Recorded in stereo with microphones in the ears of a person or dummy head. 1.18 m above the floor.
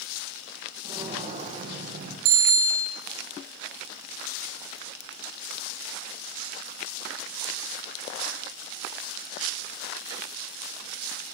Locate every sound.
0.8 s footsteps: 35° right (ahead or behind), 2.5 m; by 2.1 s 60° right (ahead or behind), 3 m
2.2 s a bicycle bell: 75° right (ahead or behind), 3 m